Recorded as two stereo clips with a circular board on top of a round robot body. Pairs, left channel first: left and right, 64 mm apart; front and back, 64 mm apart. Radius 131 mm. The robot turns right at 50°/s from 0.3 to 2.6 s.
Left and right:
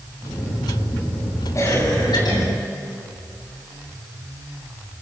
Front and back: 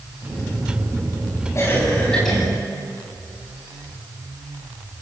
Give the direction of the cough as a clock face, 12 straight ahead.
10 o'clock.